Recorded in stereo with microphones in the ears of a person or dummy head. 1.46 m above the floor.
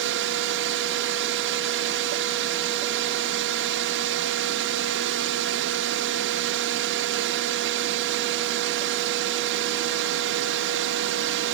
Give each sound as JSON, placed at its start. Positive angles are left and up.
{"t": 0.0, "sound": "a drone", "side_deg": -65}